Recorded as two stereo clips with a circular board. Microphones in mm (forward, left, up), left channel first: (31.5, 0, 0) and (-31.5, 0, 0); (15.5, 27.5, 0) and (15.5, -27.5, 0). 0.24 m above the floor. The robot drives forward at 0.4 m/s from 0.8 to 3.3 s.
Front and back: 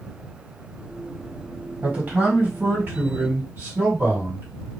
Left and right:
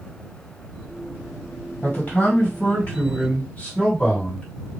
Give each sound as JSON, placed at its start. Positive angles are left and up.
{"t": 1.8, "sound": "a man speaking", "azimuth_deg": 130, "distance_m": 1.8}